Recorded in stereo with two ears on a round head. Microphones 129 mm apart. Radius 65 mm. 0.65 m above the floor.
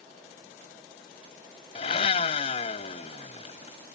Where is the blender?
40° left (ahead or behind).